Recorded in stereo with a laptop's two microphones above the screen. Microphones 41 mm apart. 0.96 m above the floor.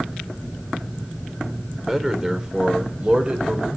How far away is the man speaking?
About 2.5 m.